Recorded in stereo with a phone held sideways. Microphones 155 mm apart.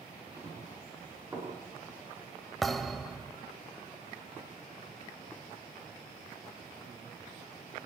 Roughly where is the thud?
Centre.